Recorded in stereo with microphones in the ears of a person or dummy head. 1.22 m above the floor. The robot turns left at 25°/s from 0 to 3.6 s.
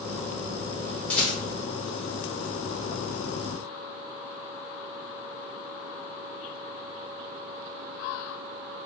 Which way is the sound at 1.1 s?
5° left (ahead or behind).